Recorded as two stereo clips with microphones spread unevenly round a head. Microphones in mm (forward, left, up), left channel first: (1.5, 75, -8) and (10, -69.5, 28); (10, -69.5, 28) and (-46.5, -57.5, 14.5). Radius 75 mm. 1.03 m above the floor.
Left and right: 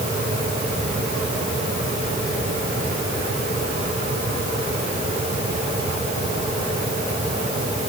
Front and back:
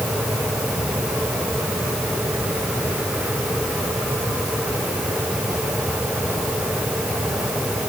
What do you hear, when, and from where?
Only background noise.